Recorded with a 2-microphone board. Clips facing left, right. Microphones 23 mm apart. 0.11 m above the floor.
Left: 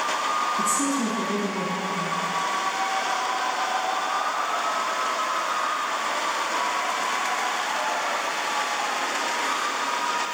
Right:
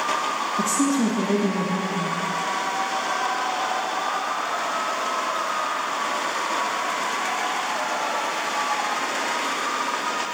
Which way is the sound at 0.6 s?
35° right (ahead or behind).